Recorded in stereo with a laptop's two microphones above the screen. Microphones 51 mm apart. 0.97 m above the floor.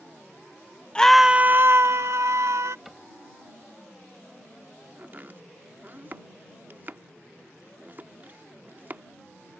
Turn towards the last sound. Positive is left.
turn(degrees=-40)  # may be behind; listen again after turning